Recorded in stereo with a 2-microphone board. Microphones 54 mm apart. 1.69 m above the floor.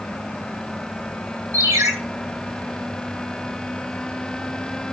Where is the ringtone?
80° right, 7.5 m.